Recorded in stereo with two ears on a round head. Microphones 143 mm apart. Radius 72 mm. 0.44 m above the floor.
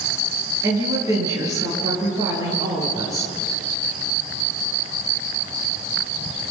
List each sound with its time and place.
0.6 s a woman speaking: 20° right (ahead or behind), 8 m